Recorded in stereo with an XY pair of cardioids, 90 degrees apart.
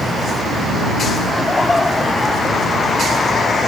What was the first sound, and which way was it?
Laughter, 20° left.